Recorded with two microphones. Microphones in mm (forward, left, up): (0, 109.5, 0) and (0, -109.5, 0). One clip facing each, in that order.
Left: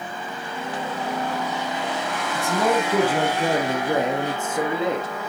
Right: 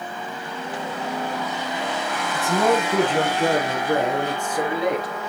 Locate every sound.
2.4 s a man speaking: 5° right (ahead or behind), 1.9 m; by 5.1 s 25° left (ahead or behind), 3.5 m